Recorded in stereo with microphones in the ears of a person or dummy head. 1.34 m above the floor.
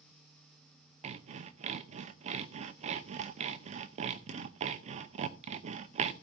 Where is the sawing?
35° right (ahead or behind), 0.7 m.